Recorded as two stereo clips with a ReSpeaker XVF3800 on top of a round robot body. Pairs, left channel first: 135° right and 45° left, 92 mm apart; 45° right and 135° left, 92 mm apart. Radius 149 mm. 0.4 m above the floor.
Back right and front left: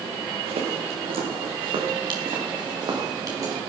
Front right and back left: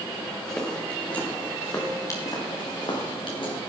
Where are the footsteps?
40° left, 3.5 m; by 3.6 s 10° right, 4 m.